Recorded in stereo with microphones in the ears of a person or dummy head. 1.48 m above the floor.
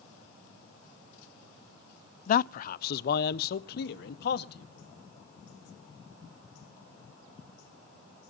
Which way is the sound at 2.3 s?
45° left (ahead or behind).